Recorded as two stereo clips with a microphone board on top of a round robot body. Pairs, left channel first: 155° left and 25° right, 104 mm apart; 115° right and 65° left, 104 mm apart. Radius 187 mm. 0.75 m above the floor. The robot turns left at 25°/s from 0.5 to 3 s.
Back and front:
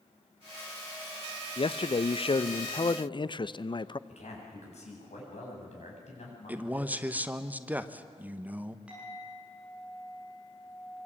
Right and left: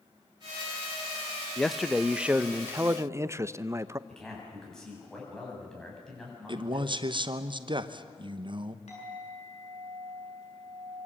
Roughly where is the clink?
Right.